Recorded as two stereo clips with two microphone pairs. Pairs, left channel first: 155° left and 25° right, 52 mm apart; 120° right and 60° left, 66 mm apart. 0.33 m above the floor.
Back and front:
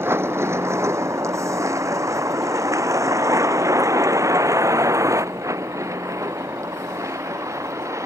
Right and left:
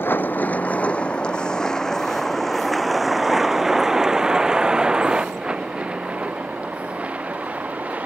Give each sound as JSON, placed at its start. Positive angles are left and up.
{"t": 0.0, "sound": "a vehicle", "azimuth_deg": -60}